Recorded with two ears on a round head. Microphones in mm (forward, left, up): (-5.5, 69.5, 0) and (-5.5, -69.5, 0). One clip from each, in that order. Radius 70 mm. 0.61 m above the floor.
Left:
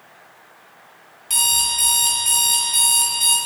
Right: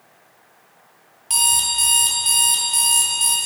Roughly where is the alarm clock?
Centre.